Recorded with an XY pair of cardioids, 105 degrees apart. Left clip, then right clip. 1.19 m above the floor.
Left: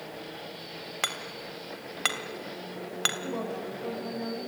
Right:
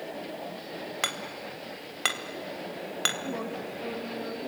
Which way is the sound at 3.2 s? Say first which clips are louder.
Even; 20° left.